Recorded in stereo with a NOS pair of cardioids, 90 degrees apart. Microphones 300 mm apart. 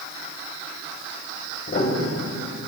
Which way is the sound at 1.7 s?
45° left.